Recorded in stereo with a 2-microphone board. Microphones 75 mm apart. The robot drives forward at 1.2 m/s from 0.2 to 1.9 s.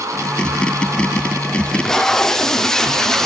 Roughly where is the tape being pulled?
Centre.